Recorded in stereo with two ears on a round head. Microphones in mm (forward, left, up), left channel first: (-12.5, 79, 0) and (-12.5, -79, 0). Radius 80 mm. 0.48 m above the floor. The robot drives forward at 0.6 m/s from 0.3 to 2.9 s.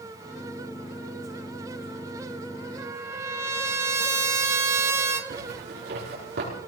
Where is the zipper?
60° right (ahead or behind), 5.5 m.